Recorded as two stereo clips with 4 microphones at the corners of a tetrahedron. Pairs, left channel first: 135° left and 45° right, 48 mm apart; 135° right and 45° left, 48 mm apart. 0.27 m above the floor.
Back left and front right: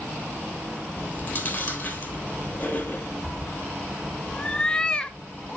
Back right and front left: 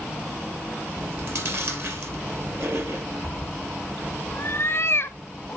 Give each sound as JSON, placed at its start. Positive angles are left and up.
{"t": 1.0, "sound": "chewing", "azimuth_deg": 75, "distance_m": 3.0}
{"t": 3.2, "sound": "a cat meowing", "azimuth_deg": -155, "distance_m": 0.7}